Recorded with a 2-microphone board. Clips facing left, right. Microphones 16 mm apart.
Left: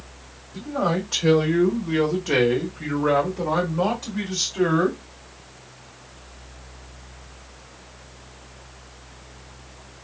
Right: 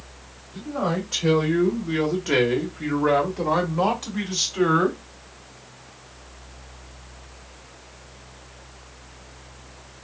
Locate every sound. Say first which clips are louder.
0.5 s a man speaking: left 2 dB; 5° left (ahead or behind), 1.4 m; by 5.0 s 30° right (ahead or behind), 1.9 m